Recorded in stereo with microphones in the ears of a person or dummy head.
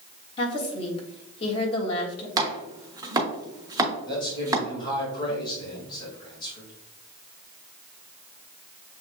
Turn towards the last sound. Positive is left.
turn(degrees=25)  # may be behind; listen again after turning